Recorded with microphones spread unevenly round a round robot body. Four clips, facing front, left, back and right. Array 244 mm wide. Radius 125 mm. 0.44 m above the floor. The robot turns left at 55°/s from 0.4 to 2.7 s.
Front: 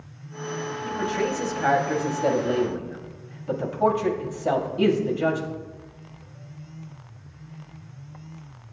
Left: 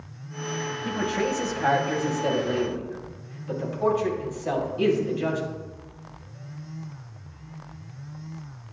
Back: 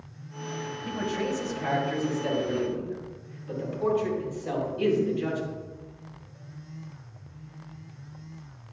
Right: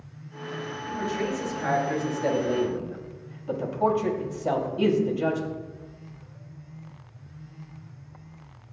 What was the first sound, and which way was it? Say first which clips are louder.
A man speaking: left 2 dB, front 4 dB; 75° left.